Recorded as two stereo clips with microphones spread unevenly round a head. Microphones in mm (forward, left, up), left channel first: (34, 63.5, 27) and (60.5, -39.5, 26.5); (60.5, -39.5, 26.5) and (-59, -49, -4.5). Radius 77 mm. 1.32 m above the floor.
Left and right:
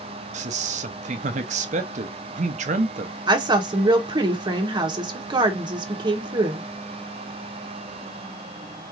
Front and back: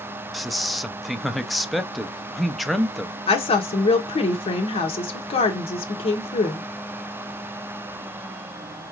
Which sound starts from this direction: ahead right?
A woman speaking, at 3.3 s.